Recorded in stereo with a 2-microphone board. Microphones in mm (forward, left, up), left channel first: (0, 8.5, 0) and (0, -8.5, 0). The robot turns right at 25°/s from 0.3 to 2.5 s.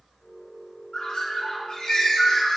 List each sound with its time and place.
0.9 s a bird: 95° left, 2.5 m; by 2.6 s 130° left, 2.5 m